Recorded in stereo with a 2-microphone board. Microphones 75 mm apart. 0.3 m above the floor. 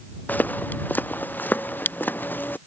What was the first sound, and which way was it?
Footsteps, 25° left (ahead or behind).